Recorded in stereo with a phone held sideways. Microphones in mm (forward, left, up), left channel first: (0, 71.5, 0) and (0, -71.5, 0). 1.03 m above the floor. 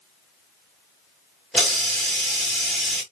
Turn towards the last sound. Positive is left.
turn(degrees=0)  # may be behind; listen again after turning